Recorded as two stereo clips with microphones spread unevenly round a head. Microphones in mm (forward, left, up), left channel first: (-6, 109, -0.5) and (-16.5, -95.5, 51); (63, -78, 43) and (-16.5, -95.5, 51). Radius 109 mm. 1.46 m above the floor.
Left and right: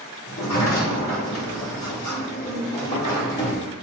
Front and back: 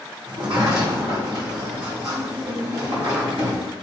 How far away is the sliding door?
About 4.5 m.